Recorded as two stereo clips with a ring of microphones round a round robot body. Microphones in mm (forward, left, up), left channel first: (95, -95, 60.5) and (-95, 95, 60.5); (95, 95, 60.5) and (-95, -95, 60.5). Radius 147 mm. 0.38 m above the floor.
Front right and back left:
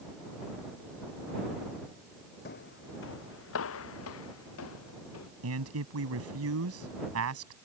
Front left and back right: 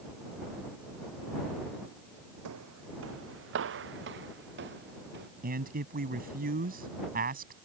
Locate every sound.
2.5 s footsteps: 100° right; by 5.3 s 80° right
5.4 s a man speaking: 170° left